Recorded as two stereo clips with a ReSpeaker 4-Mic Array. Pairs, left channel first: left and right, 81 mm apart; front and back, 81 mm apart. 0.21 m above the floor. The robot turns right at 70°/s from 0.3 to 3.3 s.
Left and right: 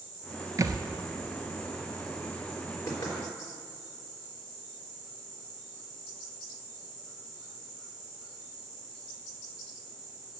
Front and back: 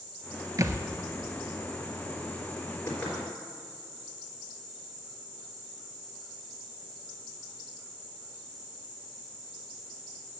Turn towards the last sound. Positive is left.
turn(degrees=85)